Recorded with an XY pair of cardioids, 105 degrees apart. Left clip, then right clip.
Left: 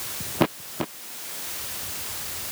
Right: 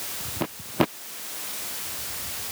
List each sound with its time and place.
Only background noise.